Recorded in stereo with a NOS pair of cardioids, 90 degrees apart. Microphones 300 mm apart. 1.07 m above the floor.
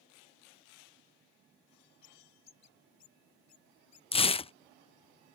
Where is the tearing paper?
20° left.